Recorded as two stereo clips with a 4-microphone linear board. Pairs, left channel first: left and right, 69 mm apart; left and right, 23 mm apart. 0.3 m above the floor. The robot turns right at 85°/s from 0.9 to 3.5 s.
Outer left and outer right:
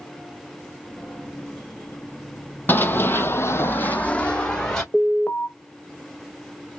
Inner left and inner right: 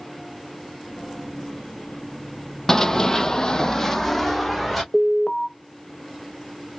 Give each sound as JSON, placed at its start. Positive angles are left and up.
{"t": 2.7, "sound": "running footsteps", "side_deg": 30, "distance_m": 0.5}
{"t": 4.9, "sound": "an alarm", "side_deg": 10, "distance_m": 0.8}